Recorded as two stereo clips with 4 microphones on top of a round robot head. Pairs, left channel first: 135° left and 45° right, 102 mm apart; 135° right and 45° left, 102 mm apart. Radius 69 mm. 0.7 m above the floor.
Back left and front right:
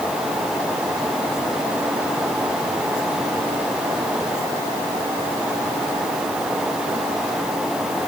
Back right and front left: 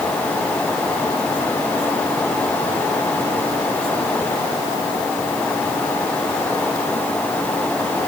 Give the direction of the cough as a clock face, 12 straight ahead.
I don't hear a cough.